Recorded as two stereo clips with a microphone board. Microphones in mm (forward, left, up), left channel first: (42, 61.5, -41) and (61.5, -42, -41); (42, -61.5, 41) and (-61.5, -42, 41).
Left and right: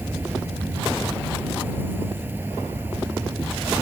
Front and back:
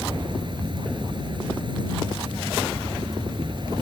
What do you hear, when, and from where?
0.0 s an insect: 150° right